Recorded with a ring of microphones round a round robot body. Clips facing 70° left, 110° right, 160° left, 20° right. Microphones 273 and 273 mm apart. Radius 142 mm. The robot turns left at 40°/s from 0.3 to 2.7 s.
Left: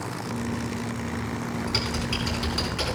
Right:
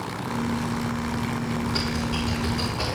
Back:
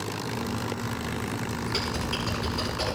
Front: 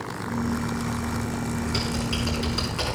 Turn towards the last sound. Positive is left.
turn(degrees=30)